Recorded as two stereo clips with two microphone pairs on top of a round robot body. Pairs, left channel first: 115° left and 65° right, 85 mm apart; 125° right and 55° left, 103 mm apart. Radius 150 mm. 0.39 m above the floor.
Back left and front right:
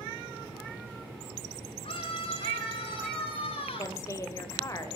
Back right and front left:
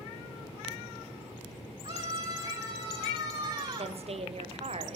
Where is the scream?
95° left, 6.5 m; by 4.0 s 110° left, 7 m.